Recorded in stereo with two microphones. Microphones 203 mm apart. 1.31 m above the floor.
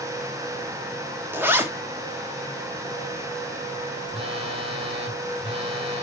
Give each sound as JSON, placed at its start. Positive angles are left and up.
{"t": 1.3, "sound": "a zipper", "side_deg": -10, "distance_m": 1.3}
{"t": 4.1, "sound": "a phone buzzing", "side_deg": -25, "distance_m": 1.8}